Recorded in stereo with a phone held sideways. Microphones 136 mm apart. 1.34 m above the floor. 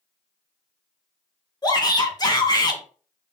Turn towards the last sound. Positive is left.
turn(degrees=30)  # may be behind; listen again after turning